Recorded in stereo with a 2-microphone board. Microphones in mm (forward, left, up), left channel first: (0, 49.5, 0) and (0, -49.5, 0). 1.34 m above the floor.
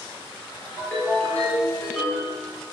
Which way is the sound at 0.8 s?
20° left (ahead or behind).